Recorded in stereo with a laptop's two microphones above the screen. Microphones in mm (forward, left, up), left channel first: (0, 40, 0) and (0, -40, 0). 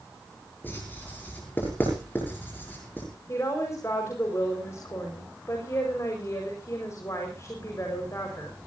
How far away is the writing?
About 7 m.